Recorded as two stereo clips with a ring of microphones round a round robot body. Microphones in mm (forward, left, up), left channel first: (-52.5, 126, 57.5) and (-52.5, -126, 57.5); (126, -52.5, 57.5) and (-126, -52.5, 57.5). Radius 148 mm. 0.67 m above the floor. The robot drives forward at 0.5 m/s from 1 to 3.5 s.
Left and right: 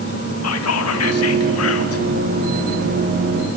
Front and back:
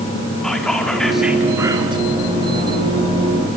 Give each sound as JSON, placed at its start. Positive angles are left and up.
{"t": 0.4, "sound": "whispering", "azimuth_deg": 85, "distance_m": 1.4}